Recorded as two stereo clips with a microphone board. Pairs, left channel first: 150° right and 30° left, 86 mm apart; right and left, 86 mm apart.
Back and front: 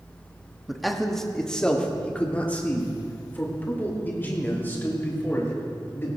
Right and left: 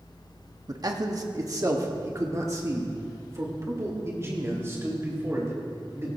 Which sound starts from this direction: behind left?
A man speaking, at 0.7 s.